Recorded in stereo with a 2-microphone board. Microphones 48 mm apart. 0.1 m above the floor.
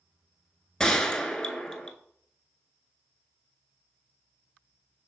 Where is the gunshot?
15° left (ahead or behind), 0.5 m.